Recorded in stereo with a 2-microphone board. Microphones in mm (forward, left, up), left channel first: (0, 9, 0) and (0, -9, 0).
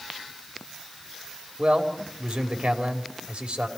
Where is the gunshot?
I don't hear a gunshot.